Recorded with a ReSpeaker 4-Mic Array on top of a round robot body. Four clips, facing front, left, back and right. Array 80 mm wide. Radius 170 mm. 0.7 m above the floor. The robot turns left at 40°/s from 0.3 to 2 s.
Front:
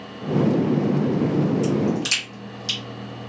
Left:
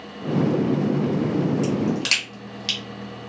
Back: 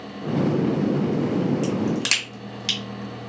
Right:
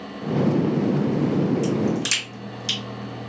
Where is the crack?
165° left, 2.0 m; by 2.8 s 150° left, 2.0 m.